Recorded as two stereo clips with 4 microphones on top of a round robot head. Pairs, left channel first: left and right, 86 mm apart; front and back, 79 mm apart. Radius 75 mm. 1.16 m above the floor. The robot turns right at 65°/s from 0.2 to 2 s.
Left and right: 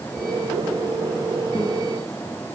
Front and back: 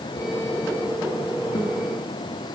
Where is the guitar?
35° left, 9 m; by 1.8 s 50° left, 9 m.